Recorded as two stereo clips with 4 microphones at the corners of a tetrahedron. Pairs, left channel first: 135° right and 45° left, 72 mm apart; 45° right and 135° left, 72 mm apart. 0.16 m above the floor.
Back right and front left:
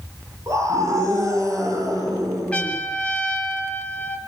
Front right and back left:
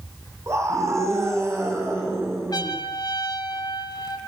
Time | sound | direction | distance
0.5 | a scream | 85° left | 8.5 m
2.5 | a trumpet | 60° right | 3 m